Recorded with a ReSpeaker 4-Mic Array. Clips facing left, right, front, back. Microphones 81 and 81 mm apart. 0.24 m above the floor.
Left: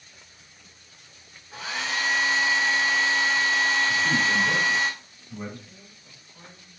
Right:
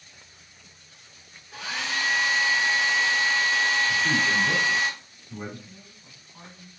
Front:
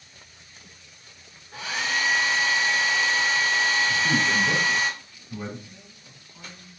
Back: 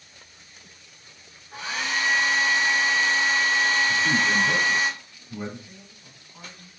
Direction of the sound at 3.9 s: 155° right.